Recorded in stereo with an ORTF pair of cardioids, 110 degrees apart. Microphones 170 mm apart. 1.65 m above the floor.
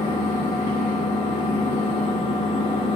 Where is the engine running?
30° left, 0.9 m.